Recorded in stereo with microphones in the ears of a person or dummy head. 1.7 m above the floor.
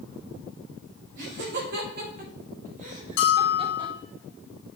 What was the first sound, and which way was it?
Laughter, 60° right (ahead or behind).